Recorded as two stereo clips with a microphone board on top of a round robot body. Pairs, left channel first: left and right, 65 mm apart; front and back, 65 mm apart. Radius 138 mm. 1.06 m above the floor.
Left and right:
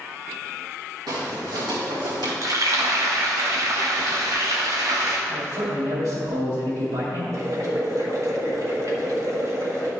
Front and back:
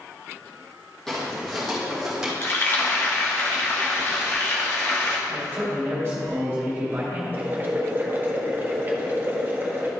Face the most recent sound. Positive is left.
turn(degrees=-120)